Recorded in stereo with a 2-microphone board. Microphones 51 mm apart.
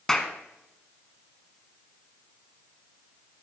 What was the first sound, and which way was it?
A clap, 10° left (ahead or behind).